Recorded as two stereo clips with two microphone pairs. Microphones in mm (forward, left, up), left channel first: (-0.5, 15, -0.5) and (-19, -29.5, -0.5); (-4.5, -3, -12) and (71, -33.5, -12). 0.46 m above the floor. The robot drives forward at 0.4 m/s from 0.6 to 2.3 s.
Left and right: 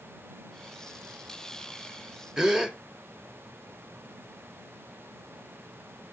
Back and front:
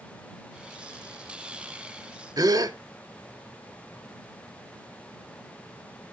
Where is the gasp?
40° right, 0.6 m.